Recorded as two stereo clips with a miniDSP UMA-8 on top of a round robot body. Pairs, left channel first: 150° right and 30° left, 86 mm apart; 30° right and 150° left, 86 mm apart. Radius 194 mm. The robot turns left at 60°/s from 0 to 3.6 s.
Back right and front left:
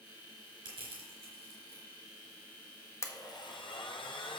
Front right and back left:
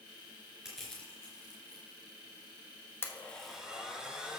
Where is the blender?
95° right, 1.3 m; by 4.4 s 130° right, 1.3 m.